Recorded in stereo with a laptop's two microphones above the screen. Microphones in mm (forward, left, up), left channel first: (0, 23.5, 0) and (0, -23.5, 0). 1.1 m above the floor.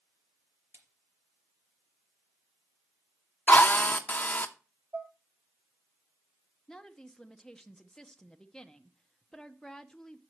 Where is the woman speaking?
10° left (ahead or behind), 0.8 m.